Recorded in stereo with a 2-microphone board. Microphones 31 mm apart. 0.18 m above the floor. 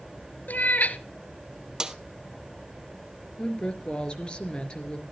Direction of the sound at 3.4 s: 30° left (ahead or behind).